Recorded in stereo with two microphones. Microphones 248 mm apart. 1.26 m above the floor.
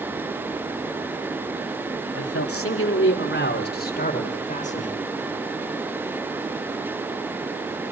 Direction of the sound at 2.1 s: 70° left (ahead or behind).